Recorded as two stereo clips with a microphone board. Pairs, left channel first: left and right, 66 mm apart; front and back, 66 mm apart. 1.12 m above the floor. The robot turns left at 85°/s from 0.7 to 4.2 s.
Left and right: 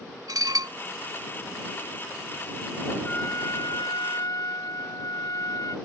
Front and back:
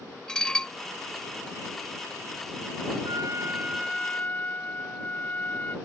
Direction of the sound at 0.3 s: 80° right.